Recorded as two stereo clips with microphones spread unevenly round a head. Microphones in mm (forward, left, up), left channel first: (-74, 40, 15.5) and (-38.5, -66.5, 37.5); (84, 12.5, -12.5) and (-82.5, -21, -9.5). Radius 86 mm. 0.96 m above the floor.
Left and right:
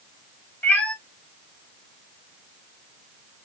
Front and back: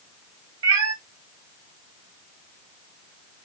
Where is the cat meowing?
170° right, 0.7 m.